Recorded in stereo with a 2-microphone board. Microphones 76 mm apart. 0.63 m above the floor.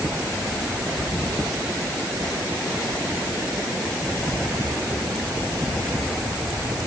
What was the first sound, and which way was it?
Only background noise.